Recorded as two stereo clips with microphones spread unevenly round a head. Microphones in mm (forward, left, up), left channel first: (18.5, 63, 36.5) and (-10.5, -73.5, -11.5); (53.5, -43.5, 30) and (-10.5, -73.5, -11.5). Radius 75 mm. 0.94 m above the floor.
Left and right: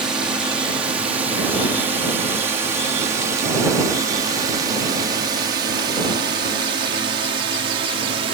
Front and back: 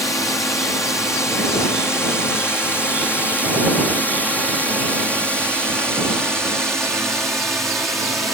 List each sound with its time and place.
0.0 s a drone: 35° right; by 8.3 s 90° right